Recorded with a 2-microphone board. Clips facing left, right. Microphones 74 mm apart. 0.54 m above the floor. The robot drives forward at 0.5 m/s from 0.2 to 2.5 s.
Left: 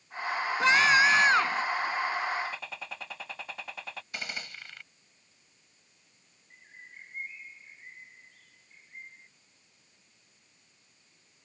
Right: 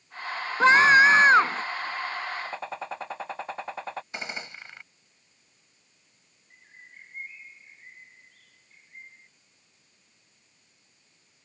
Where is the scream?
35° right (ahead or behind).